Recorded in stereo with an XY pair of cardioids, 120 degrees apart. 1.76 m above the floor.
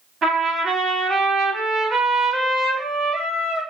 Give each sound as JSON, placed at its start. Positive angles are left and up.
{"t": 0.2, "sound": "a trumpet", "azimuth_deg": -45, "distance_m": 2.0}